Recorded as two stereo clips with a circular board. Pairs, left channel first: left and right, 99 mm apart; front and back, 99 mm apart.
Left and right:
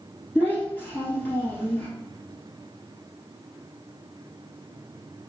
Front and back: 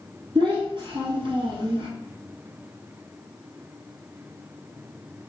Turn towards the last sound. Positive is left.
turn(degrees=165)